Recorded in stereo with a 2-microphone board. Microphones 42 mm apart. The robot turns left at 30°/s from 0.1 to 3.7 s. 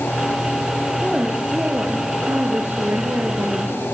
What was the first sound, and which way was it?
A woman speaking, 15° right.